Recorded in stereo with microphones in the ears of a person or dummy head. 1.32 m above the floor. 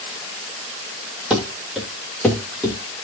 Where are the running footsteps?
Centre (ahead or behind), 1.9 m; by 2.8 s 10° left (ahead or behind), 3 m.